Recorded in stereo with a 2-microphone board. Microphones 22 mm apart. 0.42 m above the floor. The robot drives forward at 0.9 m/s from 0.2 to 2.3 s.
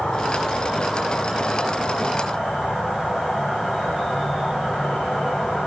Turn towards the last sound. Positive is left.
turn(degrees=35)  # may be behind; listen again after turning